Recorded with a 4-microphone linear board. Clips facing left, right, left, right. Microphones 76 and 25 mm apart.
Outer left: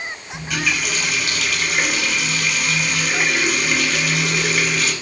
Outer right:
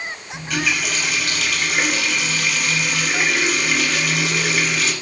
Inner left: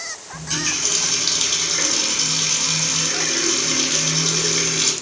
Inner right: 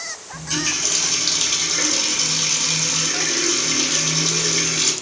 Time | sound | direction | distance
0.3 | a running tap | centre (ahead or behind) | 0.7 m